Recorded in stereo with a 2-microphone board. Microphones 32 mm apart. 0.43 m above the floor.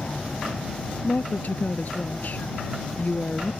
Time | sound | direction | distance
0.0 | an aircraft | 55° left (ahead or behind) | ?
1.0 | a woman speaking | 60° left (ahead or behind) | ?